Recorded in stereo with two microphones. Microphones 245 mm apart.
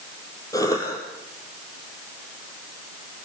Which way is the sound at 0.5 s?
15° left (ahead or behind).